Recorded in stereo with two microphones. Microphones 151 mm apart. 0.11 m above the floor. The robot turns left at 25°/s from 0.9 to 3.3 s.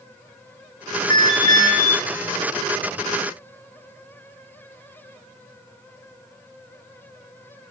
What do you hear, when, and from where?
1.1 s an alarm: 55° right (ahead or behind), 7.5 m; by 1.9 s 75° right (ahead or behind), 7.5 m